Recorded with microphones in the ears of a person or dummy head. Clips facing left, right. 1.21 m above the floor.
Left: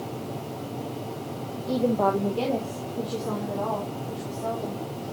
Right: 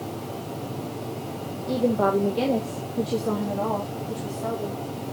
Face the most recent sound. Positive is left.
turn(degrees=-40)  # may be behind; listen again after turning